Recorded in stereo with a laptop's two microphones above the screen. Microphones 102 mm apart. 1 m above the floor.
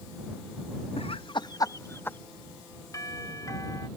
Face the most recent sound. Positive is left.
turn(degrees=35)  # may be behind; listen again after turning